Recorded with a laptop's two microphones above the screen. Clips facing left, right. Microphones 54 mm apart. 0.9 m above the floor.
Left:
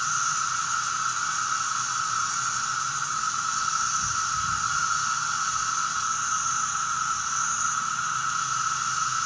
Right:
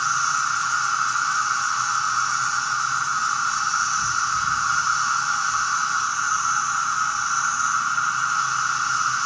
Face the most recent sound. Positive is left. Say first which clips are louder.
# right 5 dB
turn(degrees=-65)  # may be behind; listen again after turning